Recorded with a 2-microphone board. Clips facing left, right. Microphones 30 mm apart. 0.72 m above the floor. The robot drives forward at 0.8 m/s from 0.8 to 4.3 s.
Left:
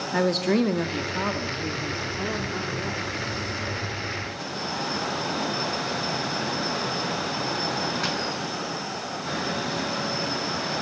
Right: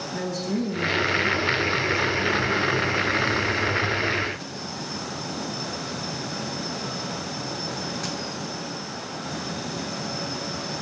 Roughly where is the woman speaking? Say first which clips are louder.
Left 6 dB; left.